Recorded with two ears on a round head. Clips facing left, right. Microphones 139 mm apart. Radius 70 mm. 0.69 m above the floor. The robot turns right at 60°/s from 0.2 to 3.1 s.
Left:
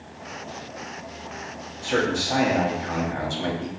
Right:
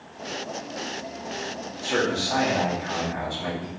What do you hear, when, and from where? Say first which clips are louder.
1.8 s a man speaking: left 1 dB; straight ahead, 1.0 m; by 3.7 s 75° left, 1.0 m